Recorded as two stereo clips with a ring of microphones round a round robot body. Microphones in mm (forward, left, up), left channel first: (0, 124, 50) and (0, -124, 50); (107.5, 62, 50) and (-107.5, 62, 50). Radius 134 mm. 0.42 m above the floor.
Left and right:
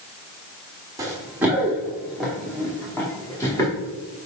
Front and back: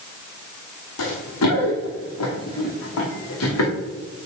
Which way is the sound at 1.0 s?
15° right.